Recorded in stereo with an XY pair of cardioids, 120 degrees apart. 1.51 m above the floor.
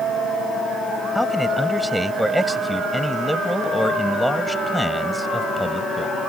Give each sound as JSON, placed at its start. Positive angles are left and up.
{"t": 1.1, "sound": "a man speaking", "azimuth_deg": 0}